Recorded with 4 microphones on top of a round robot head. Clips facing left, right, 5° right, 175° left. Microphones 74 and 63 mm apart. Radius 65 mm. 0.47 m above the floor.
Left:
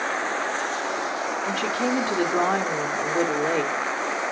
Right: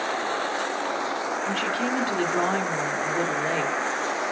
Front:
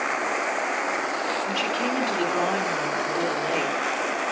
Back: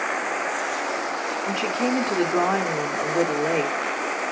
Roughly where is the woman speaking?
Behind left.